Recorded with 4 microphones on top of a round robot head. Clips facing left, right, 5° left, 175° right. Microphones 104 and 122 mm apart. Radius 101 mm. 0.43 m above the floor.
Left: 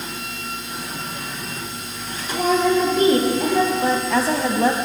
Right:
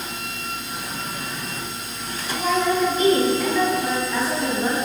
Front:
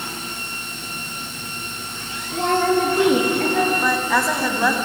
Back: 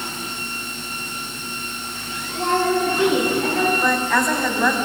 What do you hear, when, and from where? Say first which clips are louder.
2.3 s a woman speaking: left 3 dB, front 1 dB; 45° left, 9.5 m; by 3.7 s 35° left, 9 m
3.8 s a woman speaking: left 4 dB, even; 90° left, 4 m